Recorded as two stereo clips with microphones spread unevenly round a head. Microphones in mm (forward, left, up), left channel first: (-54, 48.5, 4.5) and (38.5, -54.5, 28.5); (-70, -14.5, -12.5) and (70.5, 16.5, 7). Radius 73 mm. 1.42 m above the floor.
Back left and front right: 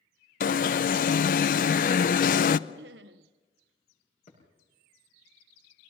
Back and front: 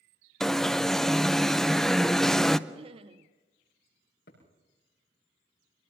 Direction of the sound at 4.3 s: 175° left.